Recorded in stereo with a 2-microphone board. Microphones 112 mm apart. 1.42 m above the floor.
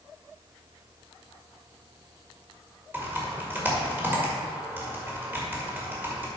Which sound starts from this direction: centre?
Typing on a keyboard, at 2.9 s.